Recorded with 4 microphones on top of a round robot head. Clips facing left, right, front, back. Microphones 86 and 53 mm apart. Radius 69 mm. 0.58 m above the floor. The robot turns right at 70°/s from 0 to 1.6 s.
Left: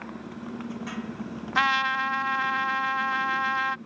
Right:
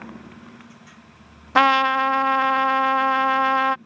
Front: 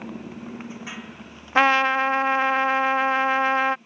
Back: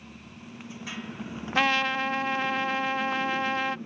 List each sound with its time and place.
0.0 s a motorcycle: straight ahead; by 3.9 s 145° left
1.6 s a trumpet: 65° right; by 3.8 s 60° right